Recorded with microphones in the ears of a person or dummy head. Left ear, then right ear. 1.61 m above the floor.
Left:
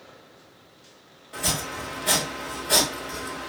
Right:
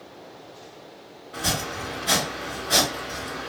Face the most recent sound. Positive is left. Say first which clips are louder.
# right 1 dB
turn(degrees=35)  # may be behind; listen again after turning